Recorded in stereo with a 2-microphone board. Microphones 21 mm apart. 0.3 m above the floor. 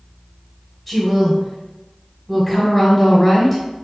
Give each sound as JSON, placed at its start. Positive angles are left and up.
{"t": 0.9, "sound": "a woman speaking", "side_deg": 5, "distance_m": 1.1}